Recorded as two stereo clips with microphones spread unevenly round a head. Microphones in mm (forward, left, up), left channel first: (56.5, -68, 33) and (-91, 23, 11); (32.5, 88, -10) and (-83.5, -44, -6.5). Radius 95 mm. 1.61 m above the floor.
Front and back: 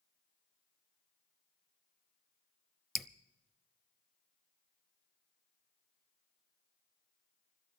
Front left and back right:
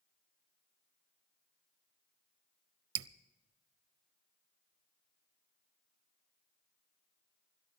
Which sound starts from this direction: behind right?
Dripping, at 3.0 s.